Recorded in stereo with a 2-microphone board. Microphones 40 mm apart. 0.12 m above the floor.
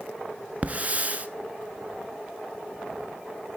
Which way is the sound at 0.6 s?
40° right (ahead or behind).